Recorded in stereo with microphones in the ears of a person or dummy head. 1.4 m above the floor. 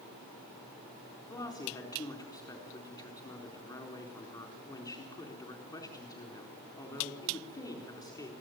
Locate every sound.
1.3 s a woman speaking: 20° left (ahead or behind), 4 m